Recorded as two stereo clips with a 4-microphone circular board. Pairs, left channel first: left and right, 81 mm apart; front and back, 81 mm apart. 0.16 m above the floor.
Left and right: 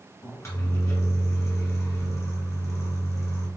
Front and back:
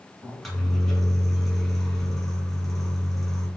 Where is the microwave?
85° left, 1.3 m.